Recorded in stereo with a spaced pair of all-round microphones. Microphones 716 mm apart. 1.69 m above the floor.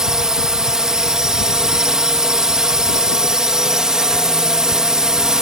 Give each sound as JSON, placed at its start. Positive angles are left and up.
{"t": 0.0, "sound": "a drone", "side_deg": 0}